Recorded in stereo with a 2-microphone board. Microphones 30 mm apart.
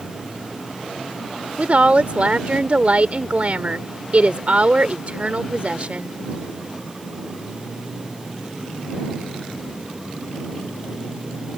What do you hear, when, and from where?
1.6 s a woman speaking: 55° right (ahead or behind)